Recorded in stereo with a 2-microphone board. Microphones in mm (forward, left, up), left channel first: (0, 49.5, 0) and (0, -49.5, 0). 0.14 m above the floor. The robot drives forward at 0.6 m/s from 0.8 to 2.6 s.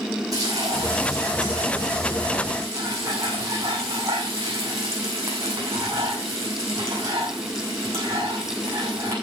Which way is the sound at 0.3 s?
40° right (ahead or behind).